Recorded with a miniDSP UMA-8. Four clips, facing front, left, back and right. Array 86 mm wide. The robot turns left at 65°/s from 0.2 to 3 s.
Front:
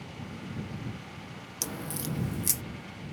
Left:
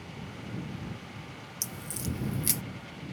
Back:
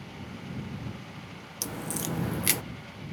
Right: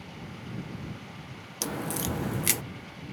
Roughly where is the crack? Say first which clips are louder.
Right 8 dB, back 2 dB; right.